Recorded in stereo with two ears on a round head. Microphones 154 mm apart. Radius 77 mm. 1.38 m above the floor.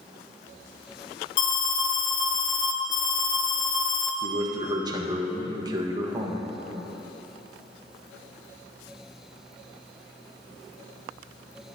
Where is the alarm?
75° left (ahead or behind), 1.1 m.